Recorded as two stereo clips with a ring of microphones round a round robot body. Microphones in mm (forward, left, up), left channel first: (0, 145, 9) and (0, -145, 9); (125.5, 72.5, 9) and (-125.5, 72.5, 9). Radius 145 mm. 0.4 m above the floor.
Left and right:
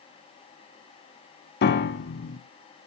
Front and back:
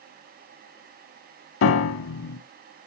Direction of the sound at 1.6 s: 35° left.